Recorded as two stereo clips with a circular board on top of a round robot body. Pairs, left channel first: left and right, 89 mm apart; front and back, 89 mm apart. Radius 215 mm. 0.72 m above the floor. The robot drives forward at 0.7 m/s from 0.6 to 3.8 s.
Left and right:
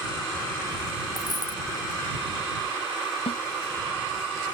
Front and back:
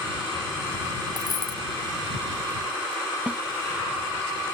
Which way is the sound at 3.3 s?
105° left.